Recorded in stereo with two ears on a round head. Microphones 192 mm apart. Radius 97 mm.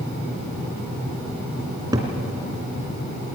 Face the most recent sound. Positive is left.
turn(degrees=-20)  # may be behind; listen again after turning